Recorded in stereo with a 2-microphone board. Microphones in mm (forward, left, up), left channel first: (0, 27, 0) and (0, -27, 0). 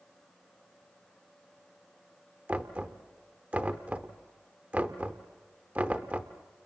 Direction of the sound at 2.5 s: 30° right (ahead or behind).